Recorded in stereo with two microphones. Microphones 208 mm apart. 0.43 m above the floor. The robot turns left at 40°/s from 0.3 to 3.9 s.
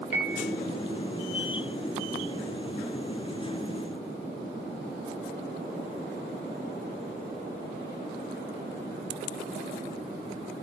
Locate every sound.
0.1 s a piano: 65° right (ahead or behind), 3 m